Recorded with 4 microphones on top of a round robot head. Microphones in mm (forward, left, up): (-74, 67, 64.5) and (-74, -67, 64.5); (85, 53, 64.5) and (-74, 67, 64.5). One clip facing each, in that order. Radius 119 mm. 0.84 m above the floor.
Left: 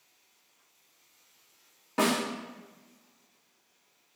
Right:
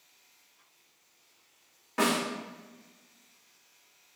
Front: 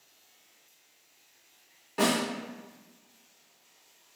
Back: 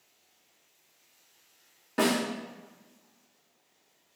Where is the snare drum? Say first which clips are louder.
Left 1 dB, back 1 dB; 150° left, 2.0 m.